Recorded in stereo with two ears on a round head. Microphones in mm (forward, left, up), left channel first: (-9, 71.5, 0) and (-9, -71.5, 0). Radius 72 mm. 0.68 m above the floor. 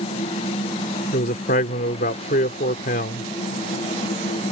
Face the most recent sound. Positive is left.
turn(degrees=60)  # may be behind; listen again after turning